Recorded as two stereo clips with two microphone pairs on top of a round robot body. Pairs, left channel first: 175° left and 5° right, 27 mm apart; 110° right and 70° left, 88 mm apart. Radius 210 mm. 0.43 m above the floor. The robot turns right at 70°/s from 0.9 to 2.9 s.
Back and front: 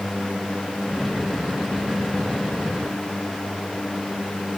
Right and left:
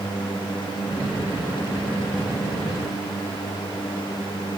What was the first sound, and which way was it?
Only background noise.